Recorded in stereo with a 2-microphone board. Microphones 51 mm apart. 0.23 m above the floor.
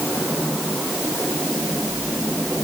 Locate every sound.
Only background noise.